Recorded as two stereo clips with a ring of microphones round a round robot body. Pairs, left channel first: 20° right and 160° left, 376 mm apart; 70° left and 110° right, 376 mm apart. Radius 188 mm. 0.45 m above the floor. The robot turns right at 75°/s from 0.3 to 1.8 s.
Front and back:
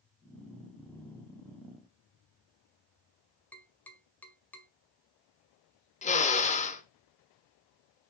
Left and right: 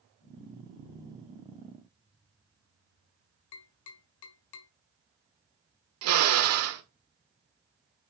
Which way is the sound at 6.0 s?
85° right.